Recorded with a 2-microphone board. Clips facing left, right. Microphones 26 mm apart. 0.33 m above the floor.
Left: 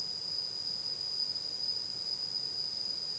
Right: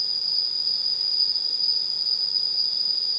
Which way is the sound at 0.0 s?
80° right.